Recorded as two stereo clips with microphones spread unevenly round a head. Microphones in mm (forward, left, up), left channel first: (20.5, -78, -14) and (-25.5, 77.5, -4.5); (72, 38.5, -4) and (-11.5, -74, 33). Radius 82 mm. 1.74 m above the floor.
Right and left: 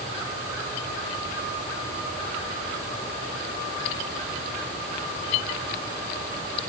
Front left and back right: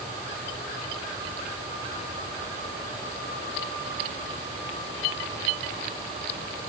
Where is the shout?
No shout in this recording.